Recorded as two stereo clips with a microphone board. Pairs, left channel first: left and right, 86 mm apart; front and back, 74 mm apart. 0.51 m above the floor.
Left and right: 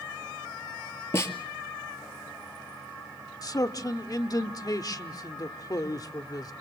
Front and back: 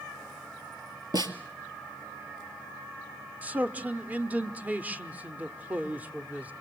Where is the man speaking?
115° left, 1.0 m.